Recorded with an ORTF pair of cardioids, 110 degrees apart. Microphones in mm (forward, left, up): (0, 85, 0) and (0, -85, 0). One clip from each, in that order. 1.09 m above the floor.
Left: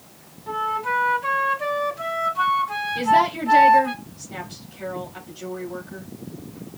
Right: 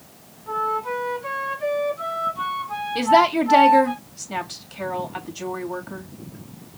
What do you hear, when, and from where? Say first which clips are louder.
0.5 s a flute: even; 30° left, 2.5 m
3.0 s a woman speaking: right 2 dB; 65° right, 2.5 m